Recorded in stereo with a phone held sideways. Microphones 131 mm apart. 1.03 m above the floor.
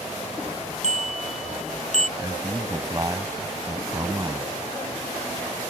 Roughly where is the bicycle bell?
Left.